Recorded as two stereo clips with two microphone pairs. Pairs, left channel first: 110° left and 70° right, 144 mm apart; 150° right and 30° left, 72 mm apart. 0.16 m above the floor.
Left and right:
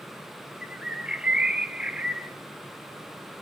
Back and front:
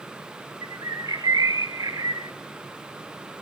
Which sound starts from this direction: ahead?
A bird, at 0.6 s.